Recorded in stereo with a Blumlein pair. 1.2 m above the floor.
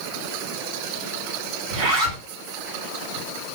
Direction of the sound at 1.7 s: 45° right.